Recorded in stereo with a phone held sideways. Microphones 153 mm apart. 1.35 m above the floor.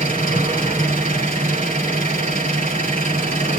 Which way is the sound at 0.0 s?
60° right (ahead or behind).